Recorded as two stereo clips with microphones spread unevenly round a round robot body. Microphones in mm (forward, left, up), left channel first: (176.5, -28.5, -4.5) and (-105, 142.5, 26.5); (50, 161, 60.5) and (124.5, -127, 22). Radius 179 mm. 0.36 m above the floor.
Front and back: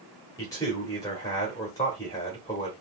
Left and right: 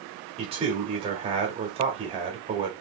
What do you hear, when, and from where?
0.4 s a man speaking: 85° right, 1.0 m